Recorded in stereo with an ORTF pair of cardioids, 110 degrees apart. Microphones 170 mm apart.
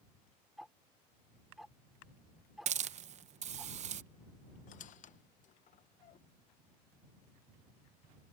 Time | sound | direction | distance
0.6 | ticking | straight ahead | ?
2.7 | a hiss | 45° right | ?
4.7 | a squeak | 50° left | ?